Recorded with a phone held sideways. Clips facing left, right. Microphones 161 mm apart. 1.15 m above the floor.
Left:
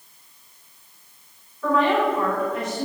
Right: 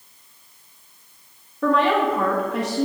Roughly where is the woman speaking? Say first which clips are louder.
Right 1 dB; right.